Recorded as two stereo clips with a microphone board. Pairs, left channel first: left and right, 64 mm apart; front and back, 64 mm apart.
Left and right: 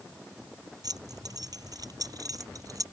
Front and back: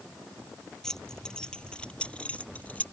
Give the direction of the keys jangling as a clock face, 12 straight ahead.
3 o'clock.